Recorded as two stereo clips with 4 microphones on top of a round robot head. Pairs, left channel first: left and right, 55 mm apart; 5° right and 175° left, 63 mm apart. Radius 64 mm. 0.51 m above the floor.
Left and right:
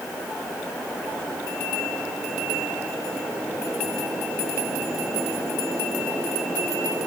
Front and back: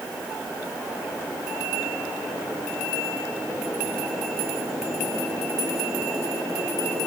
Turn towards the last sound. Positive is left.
No sound to turn to.